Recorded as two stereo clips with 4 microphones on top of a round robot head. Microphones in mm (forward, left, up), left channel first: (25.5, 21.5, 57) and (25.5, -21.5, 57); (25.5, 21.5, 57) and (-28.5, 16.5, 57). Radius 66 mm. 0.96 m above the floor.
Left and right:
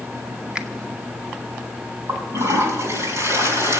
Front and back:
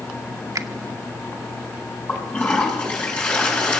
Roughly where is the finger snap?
Behind.